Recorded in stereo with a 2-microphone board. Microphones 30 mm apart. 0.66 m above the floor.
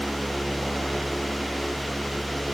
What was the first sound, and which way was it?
Only background noise.